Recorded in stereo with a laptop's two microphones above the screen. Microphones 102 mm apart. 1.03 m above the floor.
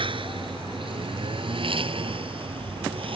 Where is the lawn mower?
55° right (ahead or behind); by 3.2 s 60° right (ahead or behind).